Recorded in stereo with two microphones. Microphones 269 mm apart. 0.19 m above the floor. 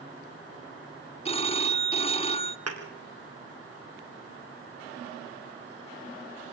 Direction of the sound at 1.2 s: 25° left (ahead or behind).